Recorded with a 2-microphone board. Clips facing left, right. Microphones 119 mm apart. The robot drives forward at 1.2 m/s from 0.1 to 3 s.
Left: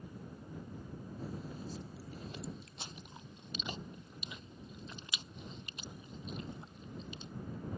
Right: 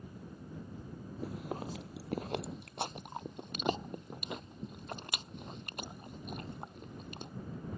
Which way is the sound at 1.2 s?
75° right (ahead or behind).